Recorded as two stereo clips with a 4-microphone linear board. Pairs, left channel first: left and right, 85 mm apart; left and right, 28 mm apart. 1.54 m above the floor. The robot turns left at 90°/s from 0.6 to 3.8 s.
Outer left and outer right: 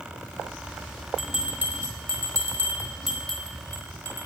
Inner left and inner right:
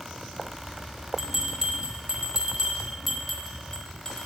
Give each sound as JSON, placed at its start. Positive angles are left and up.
{"t": 1.2, "sound": "a bell", "side_deg": 0, "distance_m": 1.0}